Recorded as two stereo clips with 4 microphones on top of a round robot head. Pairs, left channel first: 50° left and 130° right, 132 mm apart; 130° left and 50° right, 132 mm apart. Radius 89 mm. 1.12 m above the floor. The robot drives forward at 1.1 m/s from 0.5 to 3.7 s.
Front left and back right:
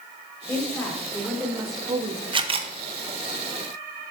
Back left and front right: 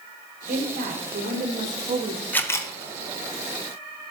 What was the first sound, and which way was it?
A woman speaking, 25° right.